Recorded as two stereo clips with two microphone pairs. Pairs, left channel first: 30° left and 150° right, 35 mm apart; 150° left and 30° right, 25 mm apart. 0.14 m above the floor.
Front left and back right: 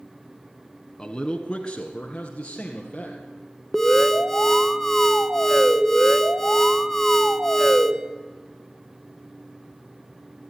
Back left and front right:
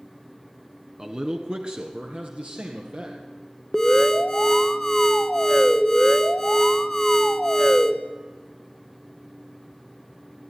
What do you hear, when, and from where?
1.0 s a man speaking: 15° right, 1.4 m; by 3.2 s 25° right, 3.5 m
3.7 s an alarm: 105° left, 0.9 m